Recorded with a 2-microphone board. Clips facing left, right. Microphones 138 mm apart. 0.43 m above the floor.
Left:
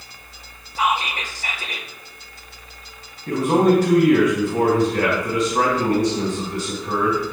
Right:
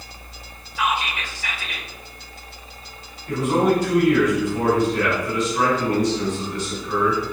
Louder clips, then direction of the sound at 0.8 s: Left 2 dB; 40° left (ahead or behind).